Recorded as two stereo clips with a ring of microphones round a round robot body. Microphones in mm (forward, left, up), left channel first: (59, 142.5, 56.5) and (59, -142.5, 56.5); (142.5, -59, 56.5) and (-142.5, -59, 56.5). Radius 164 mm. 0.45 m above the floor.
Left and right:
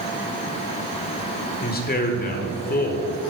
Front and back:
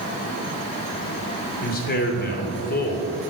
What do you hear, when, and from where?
1.6 s a man speaking: 45° left, 1.4 m